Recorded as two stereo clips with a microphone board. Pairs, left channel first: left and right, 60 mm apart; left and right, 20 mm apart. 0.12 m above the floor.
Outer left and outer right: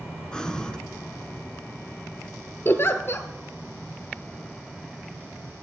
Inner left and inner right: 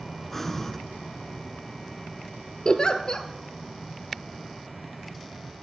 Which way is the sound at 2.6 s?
40° left (ahead or behind).